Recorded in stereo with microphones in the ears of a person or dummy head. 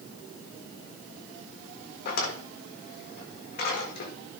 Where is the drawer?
60° left (ahead or behind), 1.6 m.